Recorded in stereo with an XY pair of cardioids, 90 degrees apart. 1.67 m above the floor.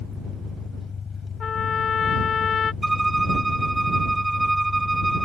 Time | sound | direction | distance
0.0 | an engine running | 55° left | ?
1.4 | a trumpet | 60° left | ?
2.8 | a violin | 10° right | ?